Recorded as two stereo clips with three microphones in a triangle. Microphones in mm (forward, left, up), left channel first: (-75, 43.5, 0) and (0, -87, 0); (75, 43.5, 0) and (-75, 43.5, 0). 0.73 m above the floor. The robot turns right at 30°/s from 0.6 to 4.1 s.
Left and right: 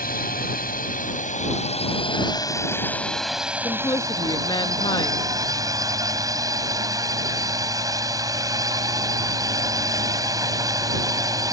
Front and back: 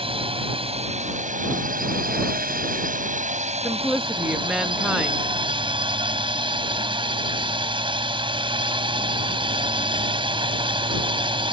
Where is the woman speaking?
85° left; by 5.3 s 100° left.